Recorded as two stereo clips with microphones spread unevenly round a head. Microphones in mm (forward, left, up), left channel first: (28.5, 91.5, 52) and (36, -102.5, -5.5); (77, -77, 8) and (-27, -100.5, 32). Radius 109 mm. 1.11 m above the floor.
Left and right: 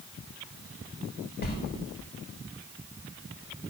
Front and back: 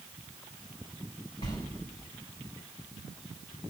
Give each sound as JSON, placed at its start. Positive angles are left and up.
{"t": 1.4, "sound": "a sliding door", "azimuth_deg": 80, "distance_m": 1.5}